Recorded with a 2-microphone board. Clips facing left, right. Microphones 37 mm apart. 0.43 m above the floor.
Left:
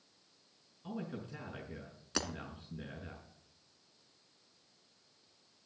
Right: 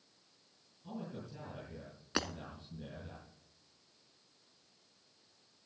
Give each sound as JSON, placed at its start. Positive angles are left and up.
{"t": 0.8, "sound": "a man speaking", "side_deg": 50, "distance_m": 5.5}
{"t": 2.1, "sound": "breaking glass", "side_deg": -20, "distance_m": 1.2}